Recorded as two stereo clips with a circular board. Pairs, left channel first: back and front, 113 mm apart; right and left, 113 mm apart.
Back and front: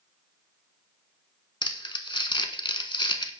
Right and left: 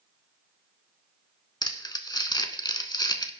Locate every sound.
1.6 s crumpling: 140° right, 0.7 m